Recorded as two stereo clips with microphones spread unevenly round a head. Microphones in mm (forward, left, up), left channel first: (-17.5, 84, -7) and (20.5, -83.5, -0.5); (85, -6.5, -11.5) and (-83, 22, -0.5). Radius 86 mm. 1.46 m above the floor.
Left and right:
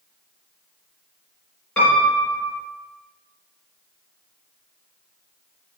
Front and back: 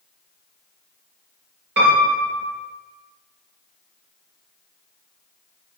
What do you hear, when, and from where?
1.8 s a piano: 175° right, 3.5 m